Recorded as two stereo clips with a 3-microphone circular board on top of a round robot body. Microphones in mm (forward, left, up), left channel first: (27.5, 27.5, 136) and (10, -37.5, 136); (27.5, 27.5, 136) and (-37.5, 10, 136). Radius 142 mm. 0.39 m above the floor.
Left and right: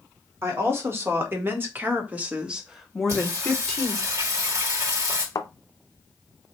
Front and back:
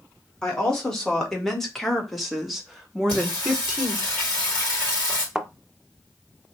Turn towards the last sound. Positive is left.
turn(degrees=115)